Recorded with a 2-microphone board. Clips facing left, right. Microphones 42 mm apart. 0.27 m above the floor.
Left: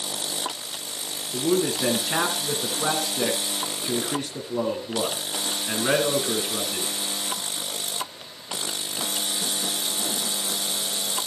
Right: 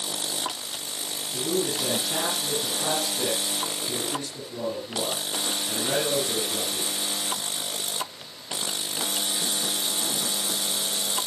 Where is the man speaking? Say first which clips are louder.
Left 4 dB; 55° left (ahead or behind), 3 m.